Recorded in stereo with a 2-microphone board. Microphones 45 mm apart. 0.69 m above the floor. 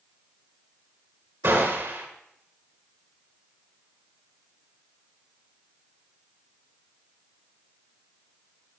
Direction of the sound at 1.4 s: 55° right (ahead or behind).